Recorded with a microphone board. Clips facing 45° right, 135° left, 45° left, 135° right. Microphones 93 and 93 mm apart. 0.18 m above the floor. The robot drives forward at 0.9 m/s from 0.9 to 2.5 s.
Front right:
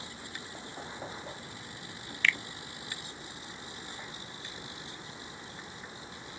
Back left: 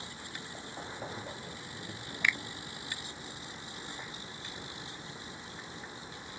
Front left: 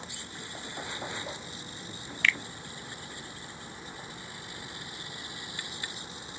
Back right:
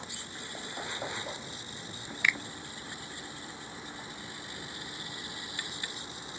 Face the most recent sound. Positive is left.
turn(degrees=180)